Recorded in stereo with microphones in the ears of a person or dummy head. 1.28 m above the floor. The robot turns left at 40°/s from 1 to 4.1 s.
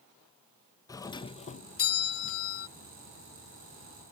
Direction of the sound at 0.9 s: 160° left.